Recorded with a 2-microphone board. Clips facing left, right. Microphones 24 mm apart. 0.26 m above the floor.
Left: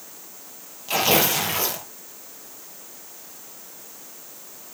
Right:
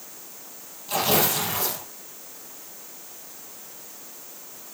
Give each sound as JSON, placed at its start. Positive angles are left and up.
{"t": 0.9, "sound": "tearing paper", "side_deg": 65, "distance_m": 5.0}